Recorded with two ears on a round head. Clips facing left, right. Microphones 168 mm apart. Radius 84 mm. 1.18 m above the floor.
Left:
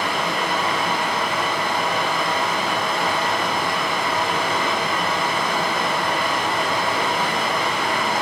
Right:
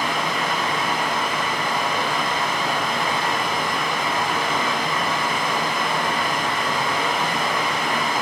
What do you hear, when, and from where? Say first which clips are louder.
0.0 s running water: left 1 dB; 70° left (ahead or behind), 6.5 m